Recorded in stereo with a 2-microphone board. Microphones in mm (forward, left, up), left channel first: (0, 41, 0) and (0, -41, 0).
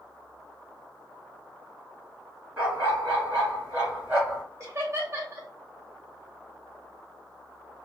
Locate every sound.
2.6 s a dog barking: 20° right (ahead or behind), 1.5 m
4.6 s laughter: 40° right (ahead or behind), 1.2 m